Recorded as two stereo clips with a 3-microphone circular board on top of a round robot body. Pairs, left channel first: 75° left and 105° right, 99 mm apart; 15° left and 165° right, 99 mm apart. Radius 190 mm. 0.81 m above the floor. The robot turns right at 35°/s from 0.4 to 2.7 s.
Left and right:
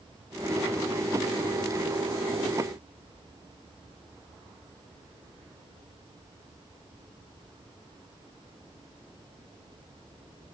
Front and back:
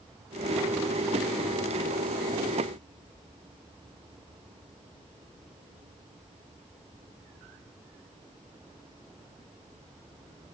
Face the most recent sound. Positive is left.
No sound to turn to.